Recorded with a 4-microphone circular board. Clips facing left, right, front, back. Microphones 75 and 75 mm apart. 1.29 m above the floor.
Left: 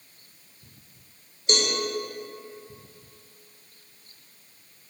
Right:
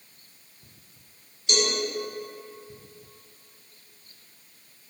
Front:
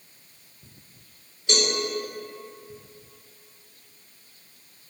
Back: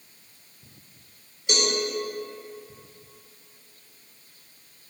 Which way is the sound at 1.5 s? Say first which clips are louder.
Even, front 1 dB; 110° left.